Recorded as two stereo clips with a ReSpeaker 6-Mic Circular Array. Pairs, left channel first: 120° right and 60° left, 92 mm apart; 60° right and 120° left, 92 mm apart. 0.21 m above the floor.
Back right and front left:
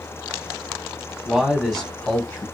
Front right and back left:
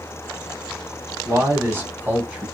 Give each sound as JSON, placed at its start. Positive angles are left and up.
{"t": 1.2, "sound": "a man speaking", "azimuth_deg": 130, "distance_m": 1.2}